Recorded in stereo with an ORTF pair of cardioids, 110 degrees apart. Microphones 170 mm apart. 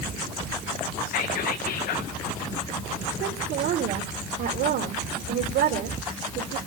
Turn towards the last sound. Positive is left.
turn(degrees=-65)